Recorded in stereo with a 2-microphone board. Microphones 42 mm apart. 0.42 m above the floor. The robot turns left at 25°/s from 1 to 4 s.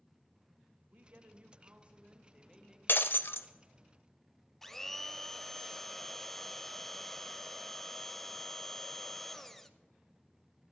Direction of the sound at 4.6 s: 10° left (ahead or behind).